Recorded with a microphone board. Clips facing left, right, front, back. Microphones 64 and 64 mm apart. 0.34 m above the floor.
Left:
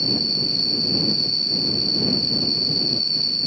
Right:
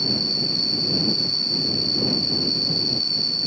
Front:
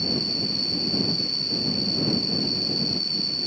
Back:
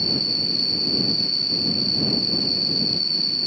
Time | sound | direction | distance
0.0 | an insect | 135° left | ?